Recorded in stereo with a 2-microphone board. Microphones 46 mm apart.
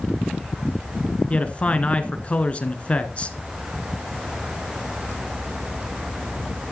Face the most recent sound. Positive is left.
turn(degrees=30)  # may be behind; listen again after turning